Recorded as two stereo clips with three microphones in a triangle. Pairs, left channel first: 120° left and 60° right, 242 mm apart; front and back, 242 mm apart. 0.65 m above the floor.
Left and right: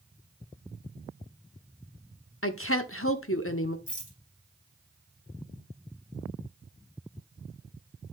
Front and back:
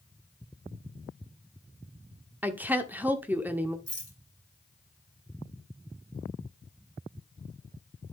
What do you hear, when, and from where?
2.4 s a woman speaking: 100° left, 1.1 m
3.9 s a rattle: straight behind, 3 m